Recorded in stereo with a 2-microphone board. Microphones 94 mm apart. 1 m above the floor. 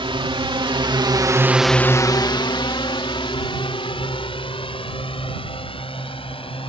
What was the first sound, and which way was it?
A drone, 70° right (ahead or behind).